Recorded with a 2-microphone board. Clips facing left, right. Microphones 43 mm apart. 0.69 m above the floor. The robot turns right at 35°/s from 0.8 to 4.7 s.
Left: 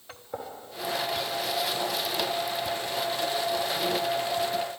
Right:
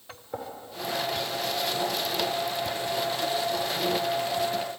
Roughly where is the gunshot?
Centre.